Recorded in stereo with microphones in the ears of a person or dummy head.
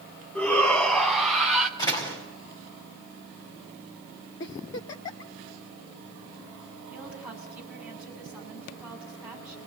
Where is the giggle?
20° left (ahead or behind), 0.9 m.